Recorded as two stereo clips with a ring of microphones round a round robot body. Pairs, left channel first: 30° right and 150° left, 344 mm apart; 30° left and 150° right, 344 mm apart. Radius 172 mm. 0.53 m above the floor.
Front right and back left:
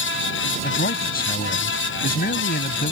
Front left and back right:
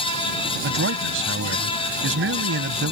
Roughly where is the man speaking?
Right.